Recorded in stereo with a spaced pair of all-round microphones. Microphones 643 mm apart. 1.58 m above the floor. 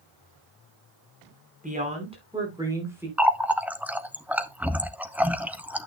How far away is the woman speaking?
About 4.5 m.